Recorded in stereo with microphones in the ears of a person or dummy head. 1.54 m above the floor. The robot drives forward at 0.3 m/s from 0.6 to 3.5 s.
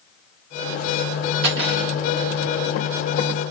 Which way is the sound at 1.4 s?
70° right (ahead or behind).